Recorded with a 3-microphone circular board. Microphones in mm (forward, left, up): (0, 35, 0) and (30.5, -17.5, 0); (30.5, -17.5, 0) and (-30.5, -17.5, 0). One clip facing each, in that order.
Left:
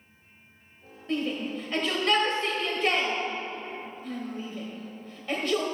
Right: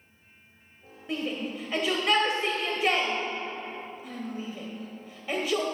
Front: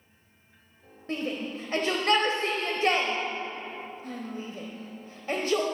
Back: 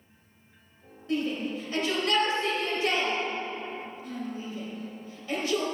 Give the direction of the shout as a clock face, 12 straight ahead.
11 o'clock.